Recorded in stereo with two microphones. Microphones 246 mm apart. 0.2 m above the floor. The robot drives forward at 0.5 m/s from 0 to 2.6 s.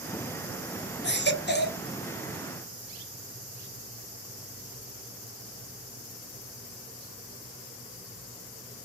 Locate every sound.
1.0 s a baby crying: 45° left (ahead or behind), 0.7 m; by 1.8 s 40° left (ahead or behind), 0.7 m